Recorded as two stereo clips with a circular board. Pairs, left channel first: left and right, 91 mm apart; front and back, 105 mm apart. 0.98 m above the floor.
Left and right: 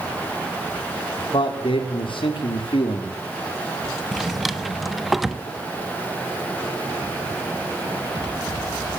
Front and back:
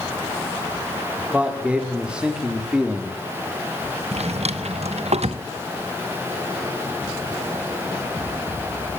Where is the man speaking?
100° left, 3.5 m; by 3.2 s 95° left, 2.5 m.